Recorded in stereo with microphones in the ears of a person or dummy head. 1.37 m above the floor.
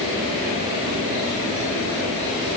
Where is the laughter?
I don't hear laughter.